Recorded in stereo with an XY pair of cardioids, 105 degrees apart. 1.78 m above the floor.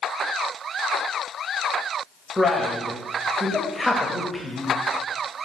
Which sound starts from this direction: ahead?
A man speaking, at 2.4 s.